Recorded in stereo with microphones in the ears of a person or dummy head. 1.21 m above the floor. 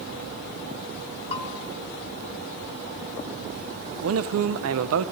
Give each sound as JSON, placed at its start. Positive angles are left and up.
{"t": 1.3, "sound": "a bell", "side_deg": 30, "distance_m": 0.7}
{"t": 4.0, "sound": "a man speaking", "side_deg": -75, "distance_m": 0.5}